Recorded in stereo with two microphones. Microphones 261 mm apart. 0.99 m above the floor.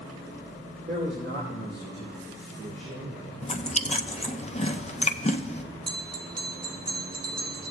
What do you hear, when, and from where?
0.9 s a man speaking: 45° right (ahead or behind), 3 m; by 3.4 s 70° right (ahead or behind), 3 m
3.4 s chewing: 25° left (ahead or behind), 0.5 m
5.9 s a bell: 75° right (ahead or behind), 0.6 m